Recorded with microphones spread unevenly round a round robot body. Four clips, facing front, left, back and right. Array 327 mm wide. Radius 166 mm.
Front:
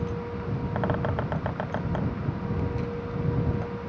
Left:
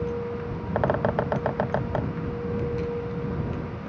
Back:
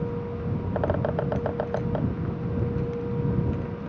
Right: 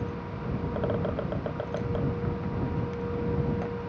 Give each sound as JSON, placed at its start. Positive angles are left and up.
{"t": 0.8, "sound": "a bird", "azimuth_deg": 85}